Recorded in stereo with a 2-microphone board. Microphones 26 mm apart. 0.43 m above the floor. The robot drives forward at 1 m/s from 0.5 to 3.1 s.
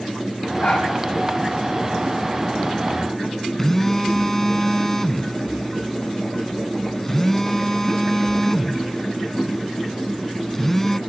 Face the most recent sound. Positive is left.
turn(degrees=10)  # may be behind; listen again after turning